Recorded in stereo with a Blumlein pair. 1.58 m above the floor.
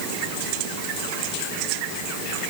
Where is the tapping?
No tapping in this recording.